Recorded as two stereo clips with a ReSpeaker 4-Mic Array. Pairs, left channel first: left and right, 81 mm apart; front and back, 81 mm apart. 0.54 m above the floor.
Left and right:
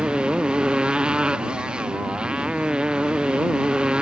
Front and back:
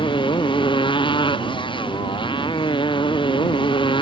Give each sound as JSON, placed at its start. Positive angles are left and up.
{"t": 0.0, "sound": "a motorcycle", "azimuth_deg": -10}